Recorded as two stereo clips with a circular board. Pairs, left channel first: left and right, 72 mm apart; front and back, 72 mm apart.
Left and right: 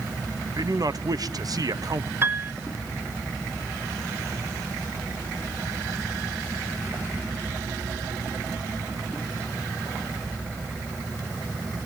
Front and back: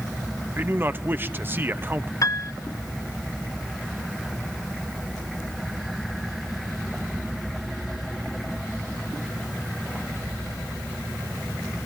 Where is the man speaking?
120° right, 1.1 m.